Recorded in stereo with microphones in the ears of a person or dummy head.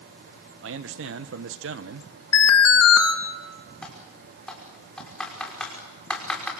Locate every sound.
0.6 s a man speaking: 60° right (ahead or behind), 1.2 m
2.3 s an alarm: 80° left, 2.5 m
3.8 s typing on a keyboard: 10° left (ahead or behind), 5 m